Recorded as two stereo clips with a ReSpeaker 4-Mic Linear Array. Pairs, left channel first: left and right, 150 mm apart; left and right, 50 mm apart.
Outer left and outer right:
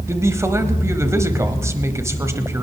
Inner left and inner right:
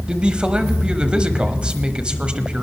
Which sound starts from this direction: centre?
A man speaking, at 0.1 s.